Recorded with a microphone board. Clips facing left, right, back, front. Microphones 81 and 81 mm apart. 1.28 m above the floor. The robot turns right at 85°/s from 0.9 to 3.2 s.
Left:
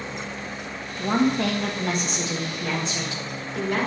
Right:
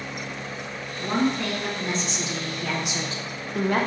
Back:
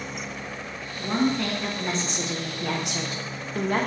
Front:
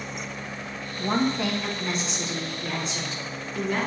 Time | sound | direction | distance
1.0 | a woman speaking | 40° left | 0.9 m